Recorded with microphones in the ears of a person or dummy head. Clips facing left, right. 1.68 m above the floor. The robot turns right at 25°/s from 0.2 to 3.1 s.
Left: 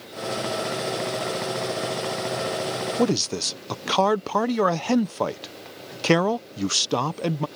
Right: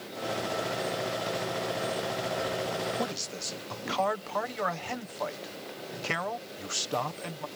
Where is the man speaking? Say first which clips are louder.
Left 12 dB; 65° left (ahead or behind).